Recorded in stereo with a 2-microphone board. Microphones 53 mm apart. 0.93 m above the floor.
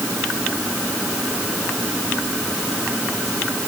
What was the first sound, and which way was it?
Only background noise.